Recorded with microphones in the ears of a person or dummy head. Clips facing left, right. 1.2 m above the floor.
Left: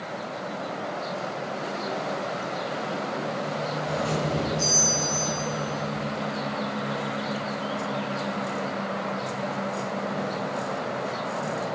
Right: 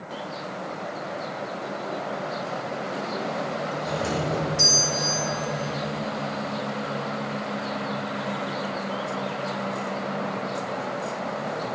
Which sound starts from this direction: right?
A doorbell, at 3.9 s.